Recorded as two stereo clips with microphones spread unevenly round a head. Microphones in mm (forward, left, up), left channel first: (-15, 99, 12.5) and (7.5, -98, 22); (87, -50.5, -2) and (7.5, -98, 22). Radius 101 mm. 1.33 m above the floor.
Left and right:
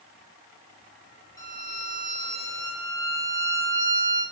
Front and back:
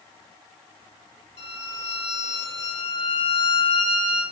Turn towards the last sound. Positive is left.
turn(degrees=25)